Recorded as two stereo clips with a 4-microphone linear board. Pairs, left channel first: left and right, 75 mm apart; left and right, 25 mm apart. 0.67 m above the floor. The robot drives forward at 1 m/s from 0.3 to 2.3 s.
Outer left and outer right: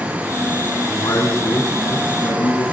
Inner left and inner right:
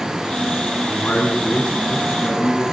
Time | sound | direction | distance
0.8 | a man speaking | 45° left (ahead or behind) | 5.5 m